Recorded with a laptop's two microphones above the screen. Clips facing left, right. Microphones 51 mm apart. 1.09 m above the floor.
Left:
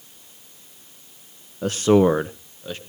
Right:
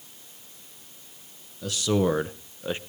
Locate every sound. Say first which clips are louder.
1.6 s a man speaking: left 8 dB; 45° left (ahead or behind), 1.0 m; by 2.8 s 25° right (ahead or behind), 1.1 m